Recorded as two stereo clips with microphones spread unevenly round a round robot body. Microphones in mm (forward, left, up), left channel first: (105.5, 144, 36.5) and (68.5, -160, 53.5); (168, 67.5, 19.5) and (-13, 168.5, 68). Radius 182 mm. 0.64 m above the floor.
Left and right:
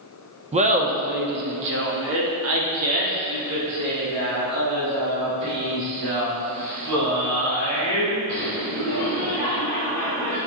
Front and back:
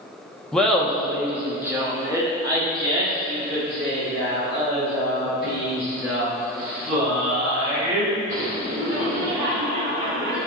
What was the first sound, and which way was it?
Laughter, 60° right.